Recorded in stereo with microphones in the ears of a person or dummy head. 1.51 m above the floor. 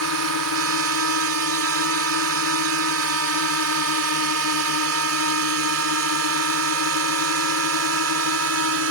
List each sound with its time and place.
0.0 s a drone: 80° right